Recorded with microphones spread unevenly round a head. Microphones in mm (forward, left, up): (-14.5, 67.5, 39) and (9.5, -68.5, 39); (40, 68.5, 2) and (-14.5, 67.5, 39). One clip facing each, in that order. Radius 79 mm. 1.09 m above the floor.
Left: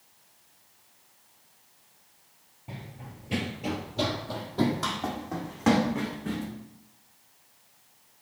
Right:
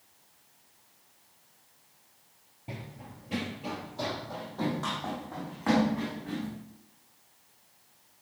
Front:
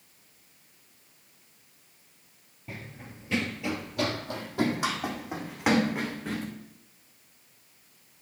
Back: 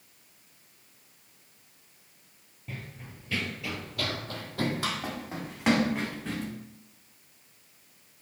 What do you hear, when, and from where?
2.7 s running footsteps: 130° right, 1.2 m; by 6.5 s 80° left, 4.5 m